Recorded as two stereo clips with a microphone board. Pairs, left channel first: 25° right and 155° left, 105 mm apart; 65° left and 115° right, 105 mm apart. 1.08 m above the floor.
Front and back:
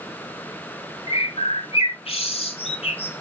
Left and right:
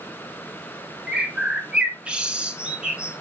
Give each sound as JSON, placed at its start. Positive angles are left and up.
{"t": 1.1, "sound": "a bird", "azimuth_deg": -35, "distance_m": 2.0}